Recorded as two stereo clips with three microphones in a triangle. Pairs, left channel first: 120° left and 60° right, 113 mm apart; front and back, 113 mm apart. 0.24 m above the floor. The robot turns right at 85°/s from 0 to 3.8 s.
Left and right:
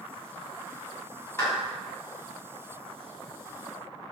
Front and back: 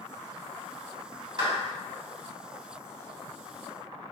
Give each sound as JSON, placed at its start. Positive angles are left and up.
{"t": 1.4, "sound": "a clap", "azimuth_deg": 175, "distance_m": 1.5}